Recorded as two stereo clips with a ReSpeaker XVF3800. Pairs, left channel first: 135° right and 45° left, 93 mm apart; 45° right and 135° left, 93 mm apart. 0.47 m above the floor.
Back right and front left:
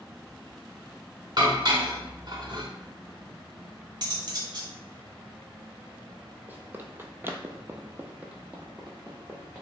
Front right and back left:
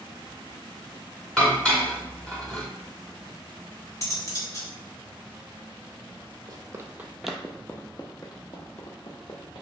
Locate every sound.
1.4 s dishes clattering: 30° left, 1.0 m
4.0 s cutlery clinking: 5° left, 0.9 m
6.5 s running footsteps: 110° left, 0.6 m; by 9.6 s 40° right, 1.3 m